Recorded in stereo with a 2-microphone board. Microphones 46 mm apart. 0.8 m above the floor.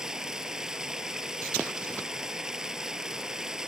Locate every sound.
0.0 s running water: 15° right (ahead or behind)